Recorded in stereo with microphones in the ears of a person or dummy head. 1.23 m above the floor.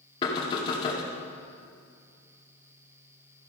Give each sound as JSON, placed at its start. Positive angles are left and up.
{"t": 0.2, "sound": "knocking", "side_deg": 30, "distance_m": 1.5}